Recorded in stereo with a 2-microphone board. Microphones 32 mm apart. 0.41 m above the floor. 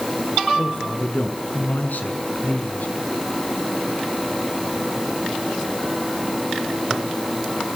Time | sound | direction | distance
0.6 | a man speaking | 75° left (ahead or behind) | 6 m